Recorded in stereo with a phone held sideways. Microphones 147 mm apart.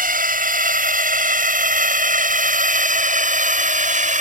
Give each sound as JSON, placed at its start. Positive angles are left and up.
{"t": 0.0, "sound": "a drone", "side_deg": -70}